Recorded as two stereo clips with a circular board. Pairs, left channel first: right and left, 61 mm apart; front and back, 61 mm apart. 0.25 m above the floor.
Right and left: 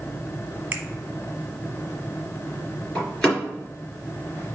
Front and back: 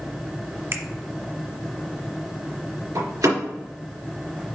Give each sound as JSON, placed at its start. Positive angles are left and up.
{"t": 0.7, "sound": "a finger snap", "azimuth_deg": 155, "distance_m": 1.5}
{"t": 3.0, "sound": "a door slam", "azimuth_deg": -170, "distance_m": 3.0}